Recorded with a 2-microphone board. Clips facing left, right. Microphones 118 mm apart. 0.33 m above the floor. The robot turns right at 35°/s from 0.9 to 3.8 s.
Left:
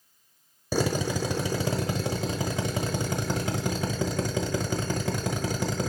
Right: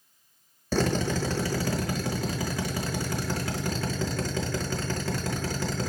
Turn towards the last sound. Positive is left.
turn(degrees=15)  # may be behind; listen again after turning